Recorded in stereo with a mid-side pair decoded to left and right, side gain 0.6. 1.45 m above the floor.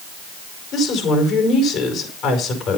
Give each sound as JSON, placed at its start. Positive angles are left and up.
{"t": 0.7, "sound": "a woman speaking", "azimuth_deg": 60, "distance_m": 5.5}